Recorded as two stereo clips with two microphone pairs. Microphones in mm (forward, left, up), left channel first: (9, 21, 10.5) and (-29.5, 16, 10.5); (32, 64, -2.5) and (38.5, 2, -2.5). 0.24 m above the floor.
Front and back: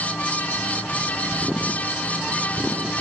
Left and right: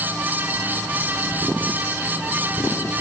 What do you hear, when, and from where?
Only background noise.